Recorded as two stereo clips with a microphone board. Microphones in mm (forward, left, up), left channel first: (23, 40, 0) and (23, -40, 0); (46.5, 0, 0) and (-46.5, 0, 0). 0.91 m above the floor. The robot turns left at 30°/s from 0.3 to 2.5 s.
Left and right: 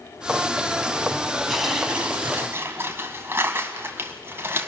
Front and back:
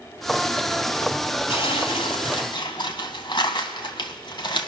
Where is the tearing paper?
Straight ahead, 1.9 m; by 4.7 s 30° right, 1.9 m.